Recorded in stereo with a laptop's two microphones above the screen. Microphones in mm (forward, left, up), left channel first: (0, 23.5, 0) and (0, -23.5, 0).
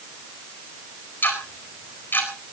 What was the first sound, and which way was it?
Ticking, 50° left (ahead or behind).